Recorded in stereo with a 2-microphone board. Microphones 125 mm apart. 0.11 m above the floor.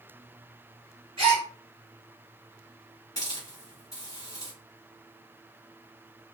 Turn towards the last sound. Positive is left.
turn(degrees=30)  # may be behind; listen again after turning